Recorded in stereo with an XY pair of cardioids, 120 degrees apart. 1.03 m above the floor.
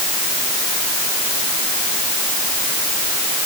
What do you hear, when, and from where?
Only background noise.